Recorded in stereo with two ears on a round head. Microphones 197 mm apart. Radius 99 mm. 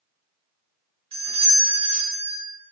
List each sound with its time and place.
1.1 s a doorbell: 25° right (ahead or behind), 1.0 m